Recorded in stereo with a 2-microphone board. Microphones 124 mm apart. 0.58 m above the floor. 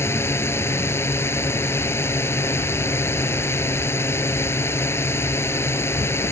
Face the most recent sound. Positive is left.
turn(degrees=20)  # may be behind; listen again after turning